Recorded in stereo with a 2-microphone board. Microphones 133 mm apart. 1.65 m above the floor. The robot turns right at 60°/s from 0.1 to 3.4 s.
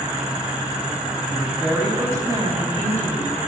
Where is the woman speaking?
160° left, 7.5 m; by 3.4 s 75° right, 7.5 m.